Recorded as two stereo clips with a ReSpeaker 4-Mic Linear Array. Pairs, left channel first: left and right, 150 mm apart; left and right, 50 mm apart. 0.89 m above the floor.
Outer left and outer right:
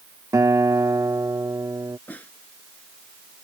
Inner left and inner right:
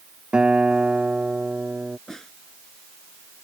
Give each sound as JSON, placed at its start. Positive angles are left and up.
{"t": 0.3, "sound": "a guitar", "side_deg": -20}
{"t": 2.1, "sound": "a snare drum", "side_deg": 10}